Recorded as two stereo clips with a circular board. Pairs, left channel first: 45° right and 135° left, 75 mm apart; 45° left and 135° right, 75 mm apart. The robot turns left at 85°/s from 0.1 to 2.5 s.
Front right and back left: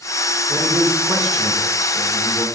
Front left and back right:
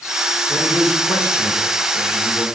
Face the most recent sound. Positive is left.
turn(degrees=-40)